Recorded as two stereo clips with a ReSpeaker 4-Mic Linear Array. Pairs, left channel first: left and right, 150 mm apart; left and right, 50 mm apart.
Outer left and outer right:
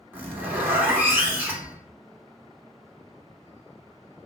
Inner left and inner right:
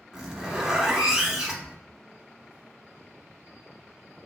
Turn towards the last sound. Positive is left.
turn(degrees=-15)  # may be behind; listen again after turning